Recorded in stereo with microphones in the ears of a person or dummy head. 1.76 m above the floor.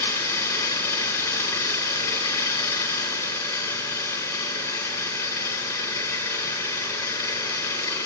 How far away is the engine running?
About 5.5 m.